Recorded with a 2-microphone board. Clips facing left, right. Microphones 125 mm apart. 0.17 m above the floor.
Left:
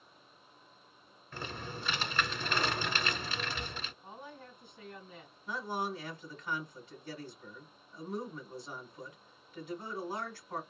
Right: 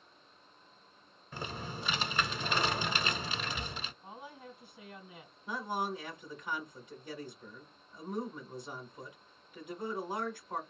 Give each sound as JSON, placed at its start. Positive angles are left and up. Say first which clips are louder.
{"t": 1.3, "sound": "typing on a keyboard", "louder": "right 1 dB", "side_deg": -15, "distance_m": 0.9}
{"t": 4.0, "sound": "a woman speaking", "louder": "even", "side_deg": -10, "distance_m": 1.6}
{"t": 5.5, "sound": "a man speaking", "louder": "right 1 dB", "side_deg": -15, "distance_m": 1.7}